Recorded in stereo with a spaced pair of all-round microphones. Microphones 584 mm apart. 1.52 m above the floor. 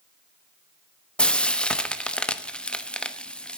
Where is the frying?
Centre (ahead or behind), 0.9 m.